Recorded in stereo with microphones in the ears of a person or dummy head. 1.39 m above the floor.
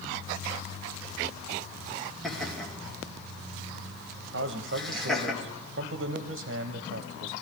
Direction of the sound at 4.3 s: 65° right (ahead or behind).